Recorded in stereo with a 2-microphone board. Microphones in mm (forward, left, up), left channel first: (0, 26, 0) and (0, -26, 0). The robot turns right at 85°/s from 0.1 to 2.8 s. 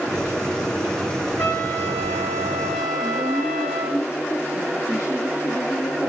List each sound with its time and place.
1.4 s a trumpet: 60° left, 5.5 m; by 4.0 s straight behind, 5.5 m
3.0 s a woman speaking: 60° left (ahead or behind), 3.5 m